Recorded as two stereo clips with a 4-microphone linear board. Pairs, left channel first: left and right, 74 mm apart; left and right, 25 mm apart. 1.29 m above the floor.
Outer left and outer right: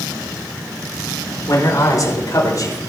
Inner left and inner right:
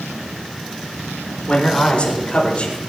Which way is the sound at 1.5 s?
50° left (ahead or behind).